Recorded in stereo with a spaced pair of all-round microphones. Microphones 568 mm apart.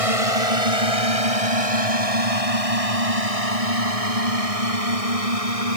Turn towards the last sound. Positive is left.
turn(degrees=-75)  # may be behind; listen again after turning